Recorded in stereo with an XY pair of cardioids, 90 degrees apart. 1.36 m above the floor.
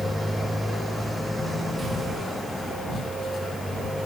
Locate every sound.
0.0 s a motorcycle: straight ahead; by 4.1 s 10° left